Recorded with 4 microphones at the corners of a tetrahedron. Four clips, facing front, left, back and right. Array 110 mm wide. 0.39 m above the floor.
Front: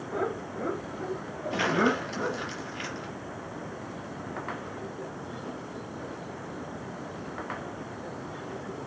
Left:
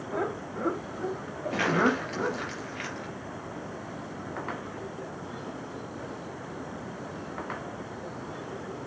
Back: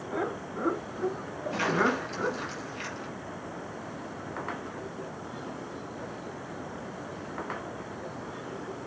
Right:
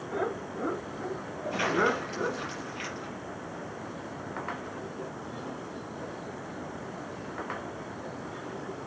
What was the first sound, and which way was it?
Laughter, 120° left.